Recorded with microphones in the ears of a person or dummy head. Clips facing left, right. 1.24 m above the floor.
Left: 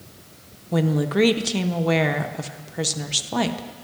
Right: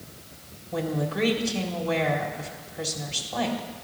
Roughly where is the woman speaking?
Left.